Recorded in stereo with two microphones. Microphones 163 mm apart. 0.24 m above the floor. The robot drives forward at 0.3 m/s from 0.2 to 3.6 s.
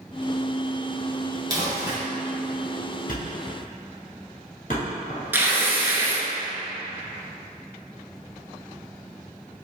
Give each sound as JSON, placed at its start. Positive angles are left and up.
{"t": 1.5, "sound": "crumpling", "side_deg": -25, "distance_m": 1.4}
{"t": 3.1, "sound": "a thud", "side_deg": 60, "distance_m": 1.6}
{"t": 5.3, "sound": "tearing paper", "side_deg": -15, "distance_m": 0.7}